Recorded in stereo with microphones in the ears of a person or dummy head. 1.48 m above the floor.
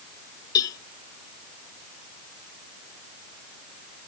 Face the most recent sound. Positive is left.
turn(degrees=20)  # may be behind; listen again after turning